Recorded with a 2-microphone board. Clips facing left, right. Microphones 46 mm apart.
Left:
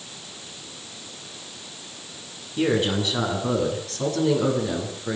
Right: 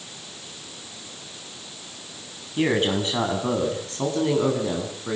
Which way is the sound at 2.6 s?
35° right (ahead or behind).